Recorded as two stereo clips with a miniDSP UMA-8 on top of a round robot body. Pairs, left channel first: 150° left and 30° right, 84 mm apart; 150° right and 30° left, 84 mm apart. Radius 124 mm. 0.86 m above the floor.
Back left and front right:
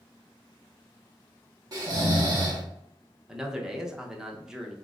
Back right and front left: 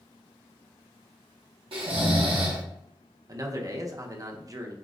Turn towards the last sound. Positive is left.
turn(degrees=50)